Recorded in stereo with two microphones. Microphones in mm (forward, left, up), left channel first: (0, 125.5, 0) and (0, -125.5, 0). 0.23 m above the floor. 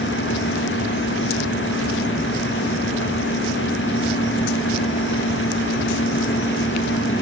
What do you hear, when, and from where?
Only background noise.